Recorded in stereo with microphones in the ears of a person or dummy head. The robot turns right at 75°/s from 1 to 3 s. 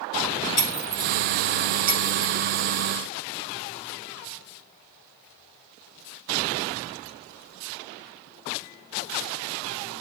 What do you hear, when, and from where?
0.6 s breaking glass: 40° left (ahead or behind), 6 m; by 2.3 s 55° right (ahead or behind), 6 m